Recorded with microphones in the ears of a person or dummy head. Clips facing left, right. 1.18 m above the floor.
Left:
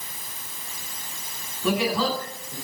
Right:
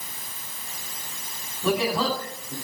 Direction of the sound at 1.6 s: 35° right (ahead or behind).